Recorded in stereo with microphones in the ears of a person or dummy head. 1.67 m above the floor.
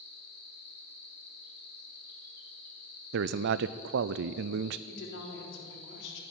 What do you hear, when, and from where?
0.0 s an insect: 55° left (ahead or behind), 2.5 m
3.1 s a man speaking: 60° right (ahead or behind), 0.6 m
4.9 s a woman speaking: 65° left (ahead or behind), 3.5 m